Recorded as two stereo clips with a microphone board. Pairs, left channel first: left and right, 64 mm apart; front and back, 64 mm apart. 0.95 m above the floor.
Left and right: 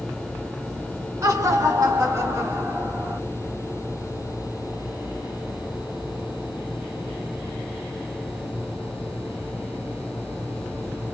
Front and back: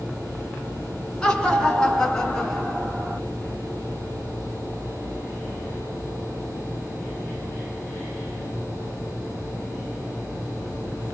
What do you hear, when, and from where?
1.2 s laughter: 80° right, 1.9 m; by 3.2 s 90° right, 1.0 m